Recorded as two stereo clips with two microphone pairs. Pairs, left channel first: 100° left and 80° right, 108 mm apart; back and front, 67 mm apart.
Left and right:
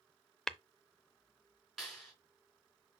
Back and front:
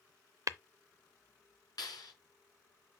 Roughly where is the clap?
Behind.